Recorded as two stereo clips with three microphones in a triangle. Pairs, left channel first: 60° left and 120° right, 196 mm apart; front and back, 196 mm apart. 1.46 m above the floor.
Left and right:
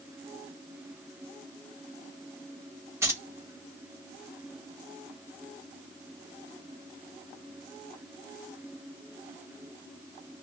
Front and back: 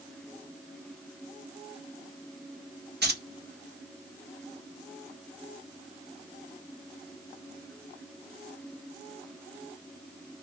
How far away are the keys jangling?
About 1.1 m.